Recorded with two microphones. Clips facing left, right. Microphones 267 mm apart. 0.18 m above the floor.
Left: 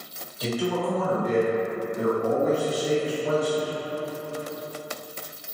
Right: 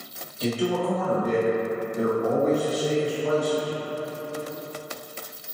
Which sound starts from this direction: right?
A man speaking, at 0.4 s.